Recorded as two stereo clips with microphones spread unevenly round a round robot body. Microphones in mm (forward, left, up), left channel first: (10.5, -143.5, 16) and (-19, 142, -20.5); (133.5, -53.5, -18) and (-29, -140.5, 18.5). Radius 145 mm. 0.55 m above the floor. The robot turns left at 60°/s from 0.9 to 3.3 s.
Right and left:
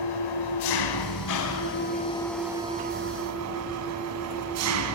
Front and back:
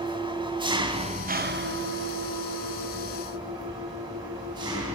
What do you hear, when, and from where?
0.0 s an engine running: 85° right, 3.5 m; by 5.0 s 130° left, 3.5 m